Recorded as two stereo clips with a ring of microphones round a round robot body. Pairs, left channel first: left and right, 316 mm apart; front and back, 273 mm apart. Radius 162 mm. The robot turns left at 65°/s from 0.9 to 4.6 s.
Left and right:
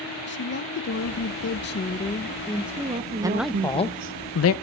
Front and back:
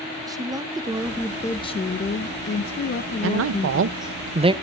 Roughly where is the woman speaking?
Left.